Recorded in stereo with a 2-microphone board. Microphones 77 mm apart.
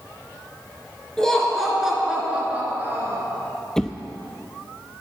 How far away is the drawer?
About 0.7 m.